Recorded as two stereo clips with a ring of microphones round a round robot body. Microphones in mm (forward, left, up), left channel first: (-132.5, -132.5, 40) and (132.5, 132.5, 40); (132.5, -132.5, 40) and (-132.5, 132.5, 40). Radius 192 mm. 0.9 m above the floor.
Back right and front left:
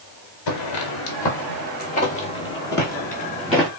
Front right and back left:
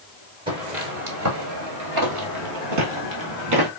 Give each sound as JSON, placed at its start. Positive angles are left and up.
{"t": 0.5, "sound": "footsteps", "azimuth_deg": -150, "distance_m": 1.1}